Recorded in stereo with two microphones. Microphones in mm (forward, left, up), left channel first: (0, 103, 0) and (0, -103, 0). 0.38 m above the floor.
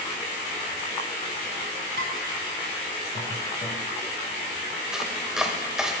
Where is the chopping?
5° right (ahead or behind), 1.1 m.